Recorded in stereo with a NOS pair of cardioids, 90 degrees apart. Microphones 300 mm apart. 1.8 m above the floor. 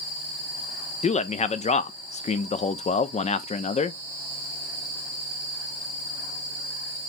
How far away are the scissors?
I don't hear scissors.